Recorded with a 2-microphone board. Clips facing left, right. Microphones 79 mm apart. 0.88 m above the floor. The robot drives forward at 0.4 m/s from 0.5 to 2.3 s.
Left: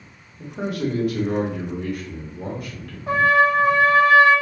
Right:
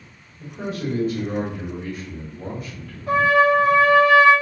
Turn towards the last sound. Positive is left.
turn(degrees=35)  # may be behind; listen again after turning